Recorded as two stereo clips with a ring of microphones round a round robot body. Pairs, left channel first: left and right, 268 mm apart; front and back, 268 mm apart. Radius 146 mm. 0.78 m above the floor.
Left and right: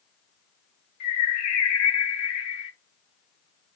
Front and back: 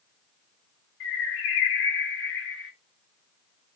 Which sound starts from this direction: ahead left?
A bird, at 1.0 s.